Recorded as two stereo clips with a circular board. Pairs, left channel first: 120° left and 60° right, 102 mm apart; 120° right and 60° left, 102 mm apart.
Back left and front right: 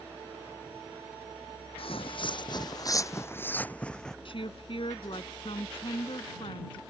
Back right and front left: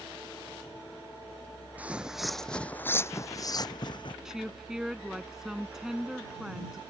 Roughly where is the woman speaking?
Behind left.